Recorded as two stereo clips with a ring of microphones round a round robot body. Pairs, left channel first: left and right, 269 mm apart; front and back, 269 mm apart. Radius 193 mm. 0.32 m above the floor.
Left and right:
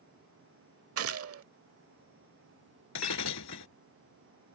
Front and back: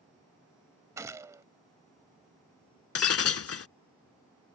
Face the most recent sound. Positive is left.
turn(degrees=40)